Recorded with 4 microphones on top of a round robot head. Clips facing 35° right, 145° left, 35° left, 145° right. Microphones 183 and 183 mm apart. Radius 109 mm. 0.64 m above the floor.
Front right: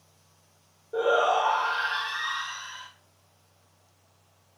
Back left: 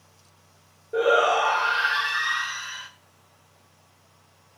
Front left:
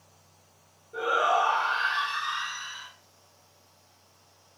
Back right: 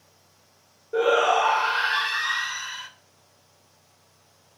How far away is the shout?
About 2.5 m.